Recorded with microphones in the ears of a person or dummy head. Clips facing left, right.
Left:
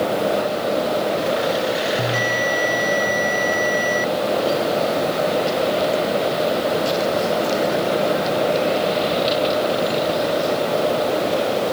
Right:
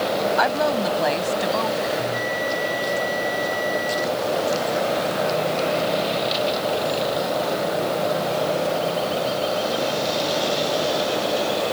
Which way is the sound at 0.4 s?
70° right (ahead or behind).